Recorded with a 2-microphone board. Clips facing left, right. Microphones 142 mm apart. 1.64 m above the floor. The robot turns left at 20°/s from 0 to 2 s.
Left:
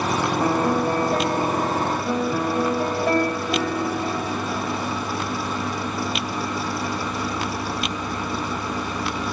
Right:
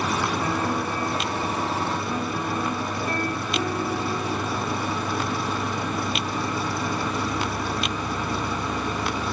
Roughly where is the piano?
Behind left.